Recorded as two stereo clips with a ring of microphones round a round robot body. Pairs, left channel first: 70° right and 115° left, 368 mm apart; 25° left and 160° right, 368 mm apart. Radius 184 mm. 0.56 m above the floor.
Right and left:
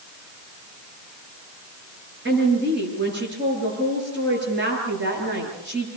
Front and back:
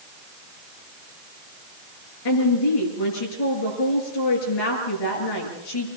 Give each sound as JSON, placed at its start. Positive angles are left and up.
{"t": 2.2, "sound": "a woman speaking", "azimuth_deg": 50, "distance_m": 9.0}